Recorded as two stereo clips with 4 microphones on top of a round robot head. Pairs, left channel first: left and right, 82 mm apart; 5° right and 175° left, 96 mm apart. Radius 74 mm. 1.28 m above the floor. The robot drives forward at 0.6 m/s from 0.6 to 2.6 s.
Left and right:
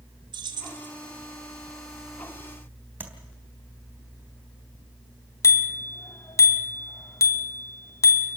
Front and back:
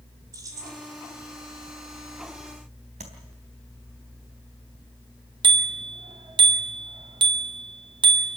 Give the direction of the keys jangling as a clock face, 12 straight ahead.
4 o'clock.